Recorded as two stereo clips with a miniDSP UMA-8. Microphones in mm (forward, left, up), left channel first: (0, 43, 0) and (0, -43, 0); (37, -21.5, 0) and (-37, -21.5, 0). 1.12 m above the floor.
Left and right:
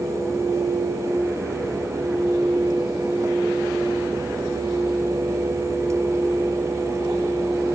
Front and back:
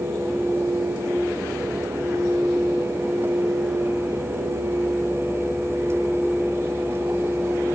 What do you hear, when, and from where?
Only background noise.